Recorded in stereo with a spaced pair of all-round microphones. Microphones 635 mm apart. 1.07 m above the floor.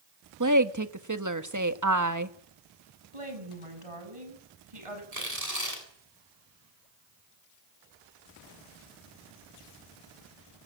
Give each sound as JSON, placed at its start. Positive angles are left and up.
{"t": 0.4, "sound": "a woman speaking", "side_deg": -30, "distance_m": 1.4}
{"t": 3.1, "sound": "a woman speaking", "side_deg": -55, "distance_m": 7.5}
{"t": 5.1, "sound": "tearing paper", "side_deg": -70, "distance_m": 8.5}